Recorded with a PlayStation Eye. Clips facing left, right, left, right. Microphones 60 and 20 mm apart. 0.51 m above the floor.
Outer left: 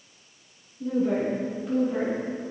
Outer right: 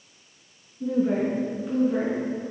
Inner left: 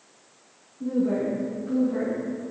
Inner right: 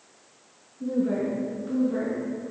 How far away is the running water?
I don't hear running water.